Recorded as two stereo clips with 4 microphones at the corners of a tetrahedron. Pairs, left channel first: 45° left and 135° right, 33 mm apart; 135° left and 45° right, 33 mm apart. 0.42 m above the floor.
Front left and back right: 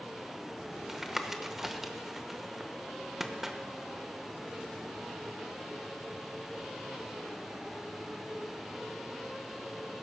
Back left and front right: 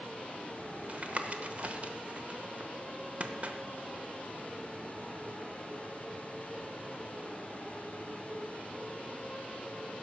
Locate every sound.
0.9 s tapping: 55° right, 0.9 m